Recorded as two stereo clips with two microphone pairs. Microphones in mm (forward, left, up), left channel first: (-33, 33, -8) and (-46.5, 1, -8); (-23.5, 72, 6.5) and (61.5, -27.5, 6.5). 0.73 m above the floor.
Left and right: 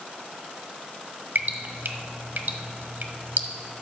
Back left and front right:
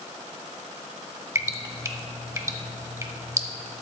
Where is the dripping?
115° right, 0.9 m.